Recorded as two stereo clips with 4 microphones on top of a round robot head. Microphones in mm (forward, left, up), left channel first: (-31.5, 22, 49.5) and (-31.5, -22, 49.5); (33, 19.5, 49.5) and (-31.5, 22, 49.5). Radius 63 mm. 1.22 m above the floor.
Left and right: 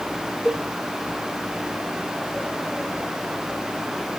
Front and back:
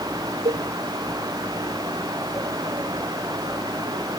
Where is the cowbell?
170° right, 1.5 m.